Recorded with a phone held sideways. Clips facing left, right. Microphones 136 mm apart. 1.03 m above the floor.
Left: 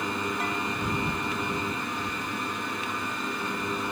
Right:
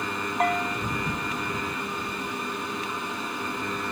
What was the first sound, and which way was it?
A bell, 60° right (ahead or behind).